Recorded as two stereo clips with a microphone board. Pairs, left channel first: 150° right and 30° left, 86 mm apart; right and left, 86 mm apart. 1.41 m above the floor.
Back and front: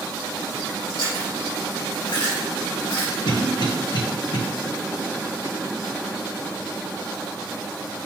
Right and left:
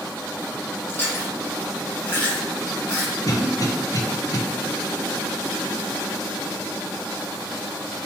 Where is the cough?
135° right, 1.5 m.